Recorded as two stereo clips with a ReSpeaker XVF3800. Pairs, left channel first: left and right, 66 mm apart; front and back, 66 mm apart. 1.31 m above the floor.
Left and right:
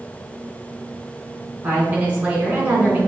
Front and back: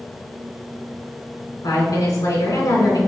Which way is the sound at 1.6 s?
20° right.